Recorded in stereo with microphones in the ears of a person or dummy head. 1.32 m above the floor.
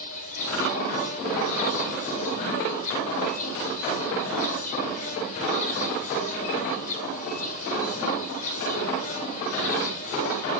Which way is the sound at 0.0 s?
40° left (ahead or behind).